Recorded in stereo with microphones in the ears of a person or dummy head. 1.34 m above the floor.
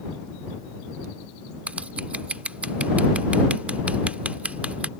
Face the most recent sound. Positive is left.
turn(degrees=-10)  # may be behind; listen again after turning